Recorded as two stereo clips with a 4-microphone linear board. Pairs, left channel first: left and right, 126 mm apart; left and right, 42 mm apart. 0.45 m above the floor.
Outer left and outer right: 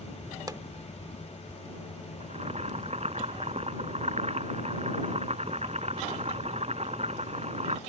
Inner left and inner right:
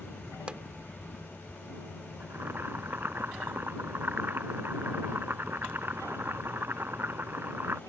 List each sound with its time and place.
0.5 s a pop: 30° right (ahead or behind)
2.2 s boiling: 60° right (ahead or behind)